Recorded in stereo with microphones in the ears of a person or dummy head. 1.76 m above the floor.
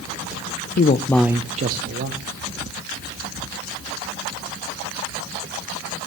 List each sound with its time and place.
0.8 s a man speaking: 55° left (ahead or behind), 0.6 m; by 2.2 s 55° right (ahead or behind), 1.3 m